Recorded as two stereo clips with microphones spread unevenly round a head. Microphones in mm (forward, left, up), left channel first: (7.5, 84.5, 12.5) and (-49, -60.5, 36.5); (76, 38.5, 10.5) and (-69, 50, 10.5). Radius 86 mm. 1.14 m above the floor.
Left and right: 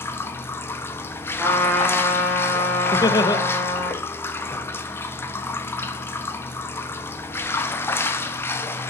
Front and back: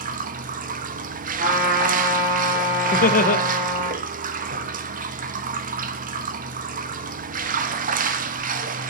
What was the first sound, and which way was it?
Running water, 145° left.